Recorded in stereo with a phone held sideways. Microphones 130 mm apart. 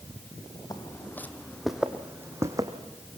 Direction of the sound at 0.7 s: 30° left (ahead or behind).